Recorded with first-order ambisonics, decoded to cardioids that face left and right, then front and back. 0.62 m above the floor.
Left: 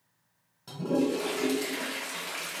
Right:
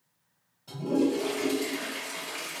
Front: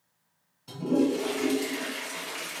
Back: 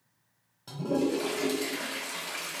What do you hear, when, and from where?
0.7 s a toilet flushing: 145° left, 1.6 m